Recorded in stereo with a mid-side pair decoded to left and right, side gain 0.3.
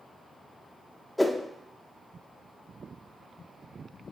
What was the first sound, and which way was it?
A whoosh, 15° left.